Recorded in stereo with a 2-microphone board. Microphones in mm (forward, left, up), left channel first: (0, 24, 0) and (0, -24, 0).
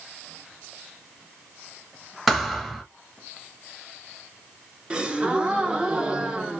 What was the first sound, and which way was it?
A thud, centre (ahead or behind).